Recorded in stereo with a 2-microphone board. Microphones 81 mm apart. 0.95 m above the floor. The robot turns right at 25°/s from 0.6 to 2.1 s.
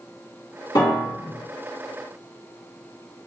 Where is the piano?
65° left (ahead or behind), 2.0 m; by 1.4 s 50° left (ahead or behind), 2.0 m.